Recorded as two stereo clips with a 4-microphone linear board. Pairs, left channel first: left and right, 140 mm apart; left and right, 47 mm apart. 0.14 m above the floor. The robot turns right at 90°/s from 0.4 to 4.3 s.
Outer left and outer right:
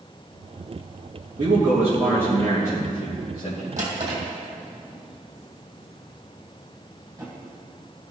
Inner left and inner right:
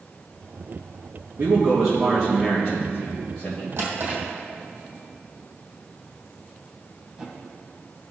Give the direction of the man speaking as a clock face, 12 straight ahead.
2 o'clock.